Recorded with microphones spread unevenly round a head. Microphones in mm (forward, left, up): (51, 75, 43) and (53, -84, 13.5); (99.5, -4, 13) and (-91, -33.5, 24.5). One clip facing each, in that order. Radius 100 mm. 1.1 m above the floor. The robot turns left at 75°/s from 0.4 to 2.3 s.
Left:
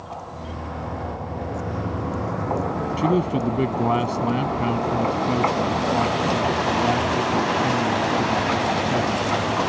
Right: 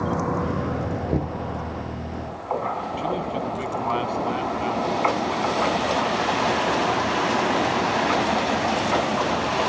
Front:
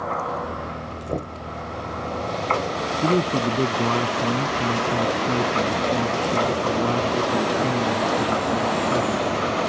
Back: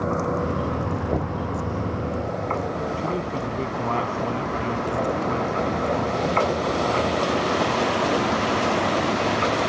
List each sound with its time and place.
0.0 s a vehicle: 115° right; by 9.7 s 110° left
1.1 s knocking: 85° right; by 1.4 s 110° right
3.0 s a man speaking: 55° left